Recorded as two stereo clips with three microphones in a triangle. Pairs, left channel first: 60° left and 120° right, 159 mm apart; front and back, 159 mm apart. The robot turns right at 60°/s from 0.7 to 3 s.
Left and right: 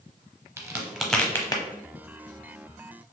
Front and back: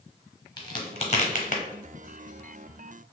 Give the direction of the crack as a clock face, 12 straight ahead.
2 o'clock.